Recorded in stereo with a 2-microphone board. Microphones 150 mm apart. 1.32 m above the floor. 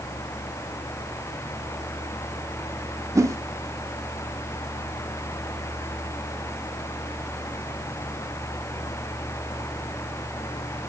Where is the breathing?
No breathing in this recording.